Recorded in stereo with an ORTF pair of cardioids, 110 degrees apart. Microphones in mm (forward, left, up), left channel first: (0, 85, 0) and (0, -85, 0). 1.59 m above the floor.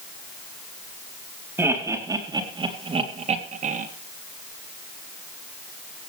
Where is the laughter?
15° right, 4 m; by 3.9 s 50° right, 3 m.